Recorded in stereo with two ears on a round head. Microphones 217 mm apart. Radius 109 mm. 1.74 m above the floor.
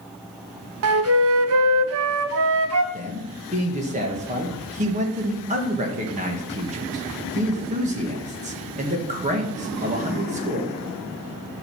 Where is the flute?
65° right (ahead or behind), 0.8 m.